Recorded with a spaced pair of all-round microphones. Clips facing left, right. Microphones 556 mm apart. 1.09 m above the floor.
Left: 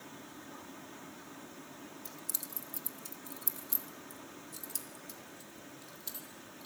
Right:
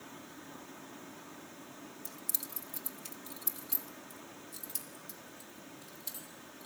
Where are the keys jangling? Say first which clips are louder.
Even; 70° right (ahead or behind), 0.9 m; by 6.7 s 75° right (ahead or behind), 3 m.